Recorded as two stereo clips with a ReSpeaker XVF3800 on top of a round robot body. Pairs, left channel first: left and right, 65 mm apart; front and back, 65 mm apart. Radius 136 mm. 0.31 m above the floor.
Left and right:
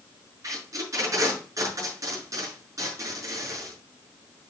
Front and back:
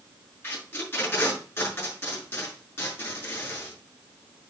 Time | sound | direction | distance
0.4 | tape being pulled | 55° right | 6.5 m